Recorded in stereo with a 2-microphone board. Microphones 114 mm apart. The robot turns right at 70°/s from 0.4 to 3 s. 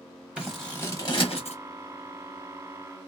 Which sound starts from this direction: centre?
Scissors, at 0.4 s.